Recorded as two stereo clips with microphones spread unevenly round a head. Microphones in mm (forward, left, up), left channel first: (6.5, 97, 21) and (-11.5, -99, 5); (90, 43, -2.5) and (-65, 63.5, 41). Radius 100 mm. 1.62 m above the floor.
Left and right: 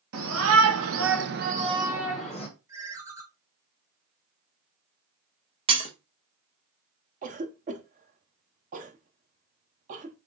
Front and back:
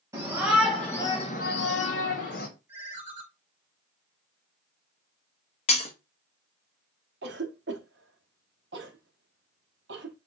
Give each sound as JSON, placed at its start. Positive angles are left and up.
{"t": 0.1, "sound": "a shout", "azimuth_deg": -120, "distance_m": 1.4}
{"t": 2.7, "sound": "a ringtone", "azimuth_deg": -165, "distance_m": 0.8}
{"t": 5.7, "sound": "breaking glass", "azimuth_deg": -55, "distance_m": 0.8}
{"t": 7.2, "sound": "a cough", "azimuth_deg": -150, "distance_m": 0.7}